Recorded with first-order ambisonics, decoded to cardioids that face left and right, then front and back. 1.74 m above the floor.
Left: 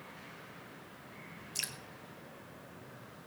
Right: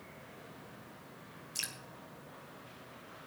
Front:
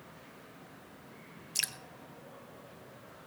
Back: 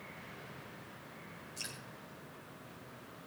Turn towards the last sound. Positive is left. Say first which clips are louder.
# left 1 dB, front 10 dB
turn(degrees=5)